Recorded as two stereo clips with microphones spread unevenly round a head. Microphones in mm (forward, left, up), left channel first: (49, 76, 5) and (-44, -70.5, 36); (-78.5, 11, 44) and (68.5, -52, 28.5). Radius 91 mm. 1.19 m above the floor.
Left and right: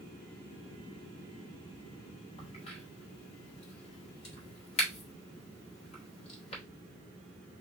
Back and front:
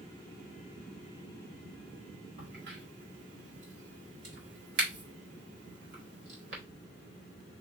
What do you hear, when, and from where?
2.4 s a crack: straight ahead, 1.6 m